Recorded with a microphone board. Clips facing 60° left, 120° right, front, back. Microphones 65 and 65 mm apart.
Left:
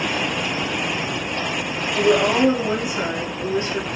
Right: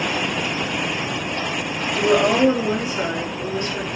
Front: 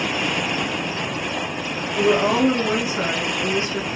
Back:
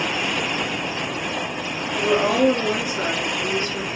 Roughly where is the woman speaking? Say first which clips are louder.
Even, front 1 dB; ahead right.